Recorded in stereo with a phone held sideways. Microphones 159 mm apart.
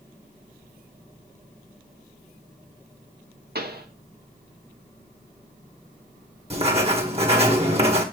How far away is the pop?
About 1.3 m.